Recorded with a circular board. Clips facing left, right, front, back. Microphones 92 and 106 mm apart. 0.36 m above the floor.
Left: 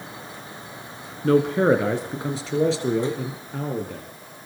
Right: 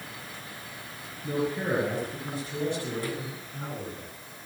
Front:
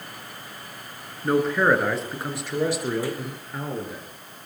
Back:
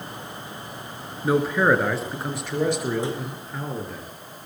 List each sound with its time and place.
1.2 s a man speaking: 95° left, 4.5 m; by 4.0 s 85° left, 6.5 m